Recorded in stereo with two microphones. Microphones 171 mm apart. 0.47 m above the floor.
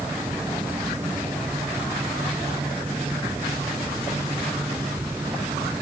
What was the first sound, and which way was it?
Only background noise.